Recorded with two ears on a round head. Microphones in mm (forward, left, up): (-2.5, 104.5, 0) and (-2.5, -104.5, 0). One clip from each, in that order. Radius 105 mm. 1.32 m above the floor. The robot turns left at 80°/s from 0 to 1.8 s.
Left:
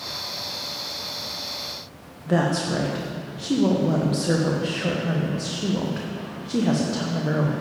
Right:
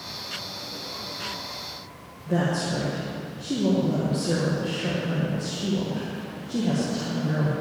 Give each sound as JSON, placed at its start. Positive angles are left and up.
{"t": 2.3, "sound": "a woman speaking", "side_deg": 50, "distance_m": 0.9}